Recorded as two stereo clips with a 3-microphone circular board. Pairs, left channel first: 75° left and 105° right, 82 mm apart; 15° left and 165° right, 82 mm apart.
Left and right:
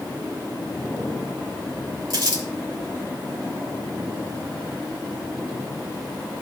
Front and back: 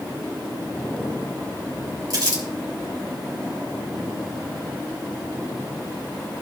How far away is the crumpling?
About 2.5 m.